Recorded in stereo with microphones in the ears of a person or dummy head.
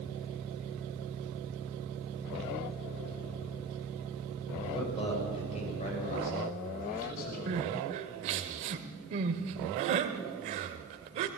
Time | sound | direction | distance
4.6 | a man speaking | 25° left (ahead or behind) | 6.5 m
7.5 | crying | 40° right (ahead or behind) | 1.5 m